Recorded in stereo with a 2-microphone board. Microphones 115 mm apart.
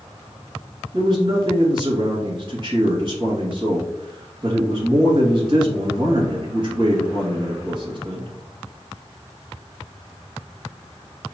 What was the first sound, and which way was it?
A man speaking, 40° right (ahead or behind).